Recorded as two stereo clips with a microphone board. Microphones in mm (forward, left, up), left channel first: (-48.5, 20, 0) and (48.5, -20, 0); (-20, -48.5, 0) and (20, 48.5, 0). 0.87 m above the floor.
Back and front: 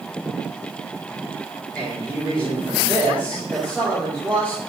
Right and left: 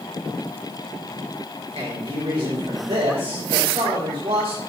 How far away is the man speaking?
About 3.5 m.